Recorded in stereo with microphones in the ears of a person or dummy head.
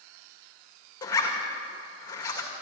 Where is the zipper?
30° left (ahead or behind), 2 m.